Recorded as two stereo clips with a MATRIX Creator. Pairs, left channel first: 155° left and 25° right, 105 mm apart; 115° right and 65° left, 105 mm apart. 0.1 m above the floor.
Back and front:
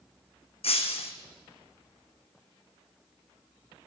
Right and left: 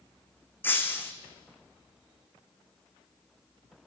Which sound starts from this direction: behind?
Breaking glass, at 0.6 s.